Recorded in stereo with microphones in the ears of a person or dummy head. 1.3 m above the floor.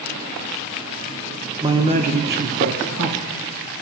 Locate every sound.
1.6 s a man speaking: 20° right (ahead or behind), 0.5 m; by 3.3 s 60° right (ahead or behind), 1.0 m